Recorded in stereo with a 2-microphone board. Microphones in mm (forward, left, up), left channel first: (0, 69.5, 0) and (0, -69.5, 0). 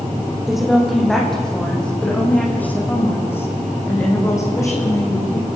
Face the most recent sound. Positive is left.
turn(degrees=25)  # may be behind; listen again after turning